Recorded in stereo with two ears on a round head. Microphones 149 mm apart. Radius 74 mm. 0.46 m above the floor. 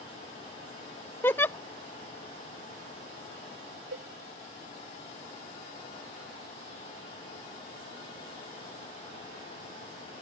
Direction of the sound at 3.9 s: 85° right.